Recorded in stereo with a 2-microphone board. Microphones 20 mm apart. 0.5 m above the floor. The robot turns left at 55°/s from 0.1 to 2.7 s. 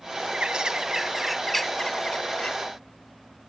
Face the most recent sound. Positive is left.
turn(degrees=105)